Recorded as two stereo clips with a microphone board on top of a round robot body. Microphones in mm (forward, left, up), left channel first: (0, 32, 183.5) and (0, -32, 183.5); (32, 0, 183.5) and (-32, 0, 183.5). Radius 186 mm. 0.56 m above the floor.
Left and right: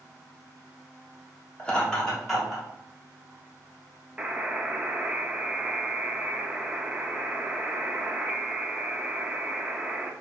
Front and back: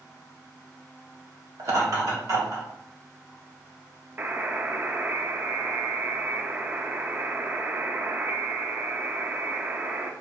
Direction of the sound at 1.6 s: 160° left.